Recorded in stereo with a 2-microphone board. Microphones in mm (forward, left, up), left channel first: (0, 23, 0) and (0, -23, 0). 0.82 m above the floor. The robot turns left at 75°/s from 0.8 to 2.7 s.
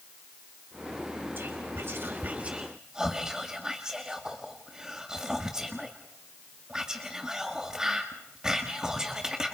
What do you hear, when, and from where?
1.4 s whispering: 50° right (ahead or behind), 1.7 m; by 9.6 s 15° right (ahead or behind), 1.7 m